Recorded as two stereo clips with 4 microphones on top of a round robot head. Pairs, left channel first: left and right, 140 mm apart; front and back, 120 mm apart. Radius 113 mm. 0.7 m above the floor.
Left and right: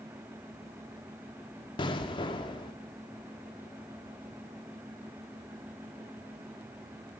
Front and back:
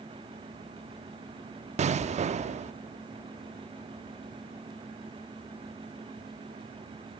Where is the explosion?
150° left, 0.6 m.